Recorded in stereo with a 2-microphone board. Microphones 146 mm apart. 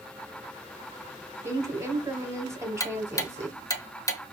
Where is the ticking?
20° left (ahead or behind), 0.6 m.